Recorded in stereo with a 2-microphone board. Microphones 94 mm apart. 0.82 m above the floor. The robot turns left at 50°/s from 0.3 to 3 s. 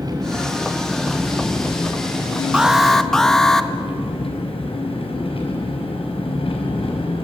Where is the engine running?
135° right, 4.5 m; by 7.2 s 90° left, 4.5 m.